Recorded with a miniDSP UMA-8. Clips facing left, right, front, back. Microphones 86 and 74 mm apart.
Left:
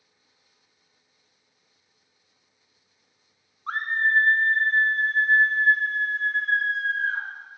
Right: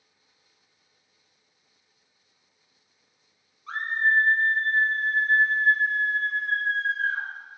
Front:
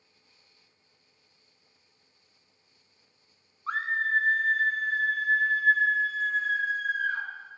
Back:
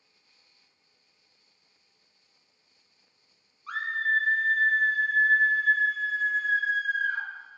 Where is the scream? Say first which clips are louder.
Even, even; 50° left, 0.6 m; by 7.2 s 105° left, 3.5 m.